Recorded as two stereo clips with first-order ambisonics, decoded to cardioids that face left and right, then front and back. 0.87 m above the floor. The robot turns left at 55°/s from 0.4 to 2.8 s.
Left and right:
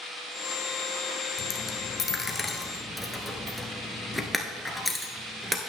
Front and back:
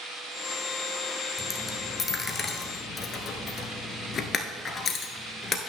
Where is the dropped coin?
85° left, 0.9 m; by 5.6 s 5° left, 0.9 m.